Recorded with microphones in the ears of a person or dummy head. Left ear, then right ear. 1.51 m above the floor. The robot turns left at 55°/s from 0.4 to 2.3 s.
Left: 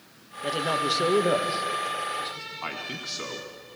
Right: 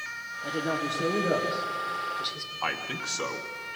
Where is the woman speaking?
75° left (ahead or behind), 1.6 m; by 2.5 s 25° right (ahead or behind), 1.6 m.